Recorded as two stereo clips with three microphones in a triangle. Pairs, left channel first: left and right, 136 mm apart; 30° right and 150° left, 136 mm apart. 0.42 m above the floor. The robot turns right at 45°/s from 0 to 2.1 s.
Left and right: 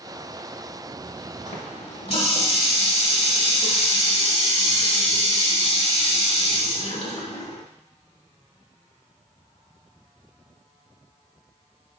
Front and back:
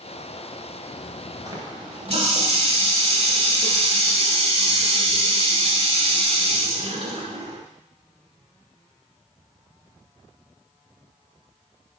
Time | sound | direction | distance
1.5 | a running tap | 90° left | 1.5 m